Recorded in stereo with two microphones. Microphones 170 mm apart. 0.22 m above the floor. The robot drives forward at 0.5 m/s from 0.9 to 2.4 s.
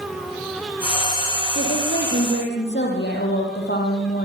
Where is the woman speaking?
75° left (ahead or behind), 7.5 m.